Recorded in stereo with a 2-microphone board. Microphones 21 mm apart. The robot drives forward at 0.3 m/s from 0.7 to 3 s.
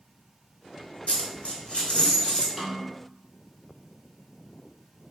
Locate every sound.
1.1 s a dropped coin: 65° left (ahead or behind), 0.8 m; by 2.5 s 45° left (ahead or behind), 1.0 m
2.6 s a snare drum: 15° right (ahead or behind), 1.5 m